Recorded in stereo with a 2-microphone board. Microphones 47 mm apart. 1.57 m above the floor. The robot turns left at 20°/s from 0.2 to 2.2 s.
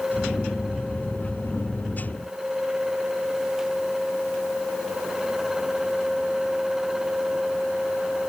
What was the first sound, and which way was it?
Only background noise.